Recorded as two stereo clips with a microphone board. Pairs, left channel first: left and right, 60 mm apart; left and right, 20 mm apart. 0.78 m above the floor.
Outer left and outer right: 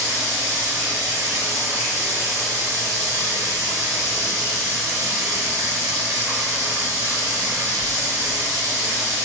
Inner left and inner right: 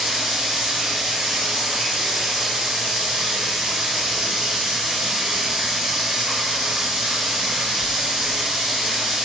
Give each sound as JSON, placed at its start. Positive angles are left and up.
{"t": 0.0, "sound": "running water", "side_deg": -85, "distance_m": 1.3}